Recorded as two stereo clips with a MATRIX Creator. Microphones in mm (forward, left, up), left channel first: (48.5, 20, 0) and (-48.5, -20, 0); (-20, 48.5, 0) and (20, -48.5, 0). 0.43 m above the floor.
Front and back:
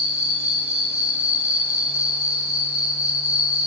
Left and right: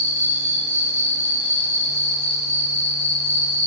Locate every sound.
0.0 s an insect: 135° right, 1.9 m